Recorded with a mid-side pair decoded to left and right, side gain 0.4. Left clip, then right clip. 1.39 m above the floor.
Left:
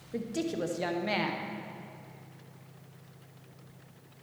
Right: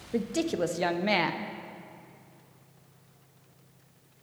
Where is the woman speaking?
40° right, 0.6 m.